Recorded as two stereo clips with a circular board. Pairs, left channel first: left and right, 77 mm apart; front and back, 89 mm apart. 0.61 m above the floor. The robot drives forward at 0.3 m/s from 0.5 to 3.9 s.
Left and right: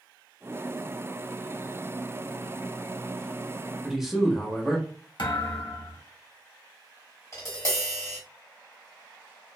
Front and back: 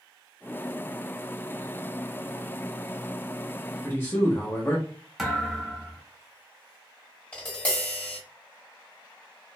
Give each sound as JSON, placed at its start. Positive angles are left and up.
{"t": 3.8, "sound": "a man speaking", "azimuth_deg": -10, "distance_m": 0.6}
{"t": 5.2, "sound": "a thud", "azimuth_deg": 90, "distance_m": 0.8}
{"t": 7.3, "sound": "tapping", "azimuth_deg": 70, "distance_m": 1.2}